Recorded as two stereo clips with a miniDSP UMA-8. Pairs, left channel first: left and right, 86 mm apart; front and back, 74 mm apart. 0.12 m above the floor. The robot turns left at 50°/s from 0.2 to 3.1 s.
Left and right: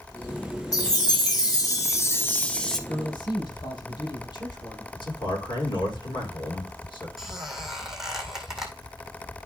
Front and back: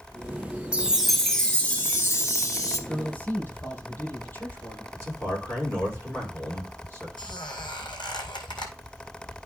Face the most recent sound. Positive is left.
turn(degrees=-5)